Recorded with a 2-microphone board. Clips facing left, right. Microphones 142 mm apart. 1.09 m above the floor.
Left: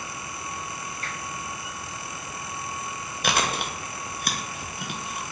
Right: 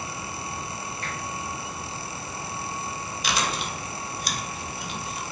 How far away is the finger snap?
About 1.8 m.